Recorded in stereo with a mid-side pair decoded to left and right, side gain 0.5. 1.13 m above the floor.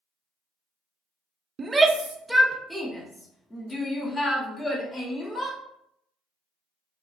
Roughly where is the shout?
Ahead right.